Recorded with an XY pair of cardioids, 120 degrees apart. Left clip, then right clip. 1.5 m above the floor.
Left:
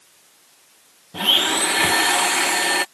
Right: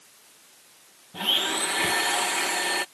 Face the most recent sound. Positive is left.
turn(degrees=40)